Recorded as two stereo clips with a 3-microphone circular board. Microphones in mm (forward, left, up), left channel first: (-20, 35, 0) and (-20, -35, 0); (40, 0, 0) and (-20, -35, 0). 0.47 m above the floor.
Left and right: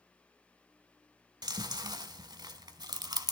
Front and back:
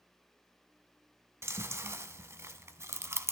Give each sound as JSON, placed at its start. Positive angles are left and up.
{"t": 1.4, "sound": "chewing", "azimuth_deg": -100, "distance_m": 1.0}